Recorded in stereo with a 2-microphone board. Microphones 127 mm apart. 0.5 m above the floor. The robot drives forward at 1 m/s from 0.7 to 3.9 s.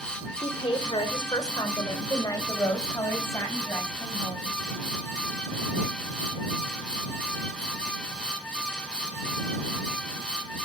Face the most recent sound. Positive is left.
turn(degrees=15)  # may be behind; listen again after turning